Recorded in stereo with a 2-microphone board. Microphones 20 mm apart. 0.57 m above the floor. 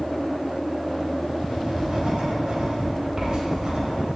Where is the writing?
50° right (ahead or behind), 2.5 m.